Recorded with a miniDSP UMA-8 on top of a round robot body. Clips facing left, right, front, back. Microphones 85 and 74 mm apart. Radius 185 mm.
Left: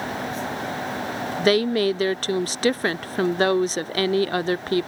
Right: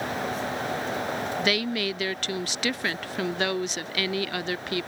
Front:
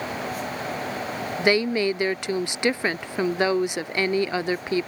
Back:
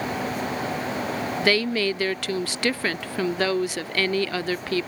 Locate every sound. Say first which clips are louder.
1.4 s a woman speaking: left 11 dB, front 2 dB; 60° left